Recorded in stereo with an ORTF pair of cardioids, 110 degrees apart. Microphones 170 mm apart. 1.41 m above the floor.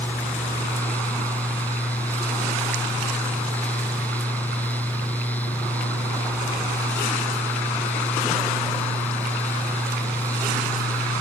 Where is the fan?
10° left.